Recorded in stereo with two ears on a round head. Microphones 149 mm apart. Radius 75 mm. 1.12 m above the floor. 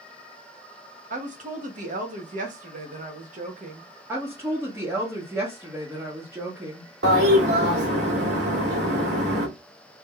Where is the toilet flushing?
65° right (ahead or behind), 2 m.